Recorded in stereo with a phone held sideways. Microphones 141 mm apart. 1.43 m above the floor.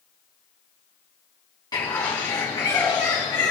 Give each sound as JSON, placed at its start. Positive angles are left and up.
{"t": 1.7, "sound": "a bird", "side_deg": 30, "distance_m": 3.5}